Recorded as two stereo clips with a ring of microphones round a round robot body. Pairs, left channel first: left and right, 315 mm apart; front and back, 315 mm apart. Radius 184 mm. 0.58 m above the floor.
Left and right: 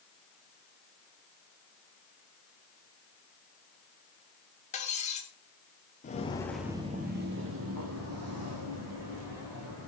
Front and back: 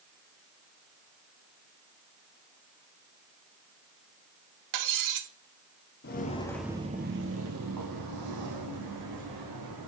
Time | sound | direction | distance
4.7 | cutlery clinking | 160° left | 1.0 m
6.0 | footsteps | 35° left | 0.7 m